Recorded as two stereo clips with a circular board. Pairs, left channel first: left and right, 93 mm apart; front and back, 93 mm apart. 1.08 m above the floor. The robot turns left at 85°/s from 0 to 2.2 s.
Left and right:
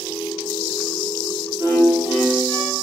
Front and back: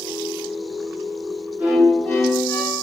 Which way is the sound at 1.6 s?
110° left.